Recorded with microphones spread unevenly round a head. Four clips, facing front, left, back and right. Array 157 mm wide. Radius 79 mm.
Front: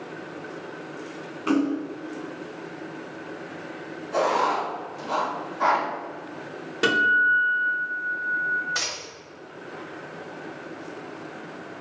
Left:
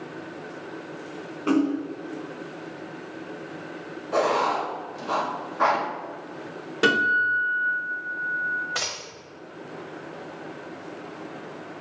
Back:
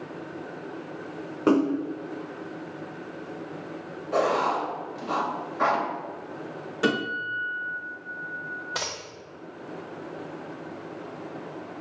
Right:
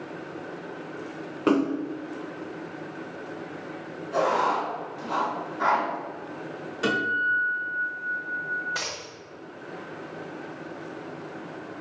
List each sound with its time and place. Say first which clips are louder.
1.5 s a splash: even, back 2 dB; 140° right, 0.6 m
4.1 s writing: left 1 dB, front 1 dB; 120° left, 1.8 m
6.8 s a guitar: left 4 dB, front 6 dB; 65° left, 2 m
8.8 s a dropped coin: left 1 dB, even; 140° left, 1.1 m